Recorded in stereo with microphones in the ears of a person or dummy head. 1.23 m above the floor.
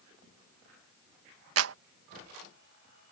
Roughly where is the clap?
Right.